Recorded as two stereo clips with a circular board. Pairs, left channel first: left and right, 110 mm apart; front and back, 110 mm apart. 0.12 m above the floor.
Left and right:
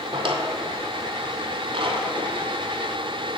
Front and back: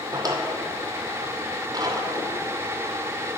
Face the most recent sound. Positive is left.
turn(degrees=-125)